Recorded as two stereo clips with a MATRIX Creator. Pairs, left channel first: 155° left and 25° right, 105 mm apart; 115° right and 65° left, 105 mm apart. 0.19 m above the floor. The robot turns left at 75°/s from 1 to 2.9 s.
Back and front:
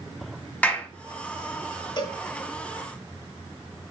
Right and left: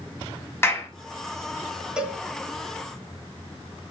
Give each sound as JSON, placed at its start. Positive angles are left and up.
{"t": 0.6, "sound": "a clap", "azimuth_deg": -145, "distance_m": 0.9}
{"t": 2.0, "sound": "a cowbell", "azimuth_deg": 150, "distance_m": 0.6}